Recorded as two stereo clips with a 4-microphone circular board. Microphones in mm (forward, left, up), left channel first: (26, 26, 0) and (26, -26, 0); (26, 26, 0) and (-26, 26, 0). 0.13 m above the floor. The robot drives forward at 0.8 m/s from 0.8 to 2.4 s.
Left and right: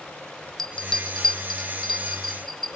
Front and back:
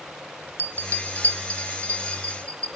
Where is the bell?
165° left, 0.6 m; by 2.7 s 175° left, 1.8 m.